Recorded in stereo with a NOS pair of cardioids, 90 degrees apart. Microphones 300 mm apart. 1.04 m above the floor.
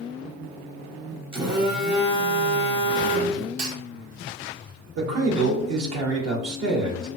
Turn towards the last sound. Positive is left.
turn(degrees=-55)